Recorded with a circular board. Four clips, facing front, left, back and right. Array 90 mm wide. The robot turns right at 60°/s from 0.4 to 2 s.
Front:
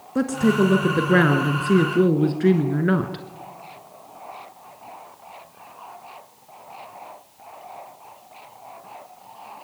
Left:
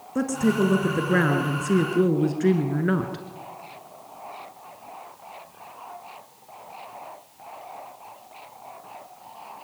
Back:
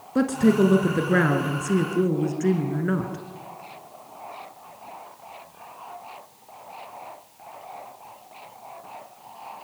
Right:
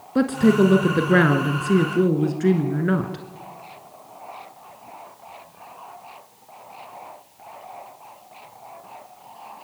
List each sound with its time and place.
0.1 s a woman speaking: 100° right, 1.4 m; by 3.2 s 5° right, 1.4 m